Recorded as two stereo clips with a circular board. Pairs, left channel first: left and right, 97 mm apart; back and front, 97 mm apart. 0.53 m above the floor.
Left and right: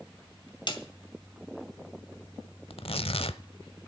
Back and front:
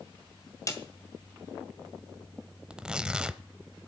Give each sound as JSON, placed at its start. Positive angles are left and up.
{"t": 0.7, "sound": "a snare drum", "azimuth_deg": 125, "distance_m": 2.0}
{"t": 2.7, "sound": "tearing paper", "azimuth_deg": 80, "distance_m": 0.7}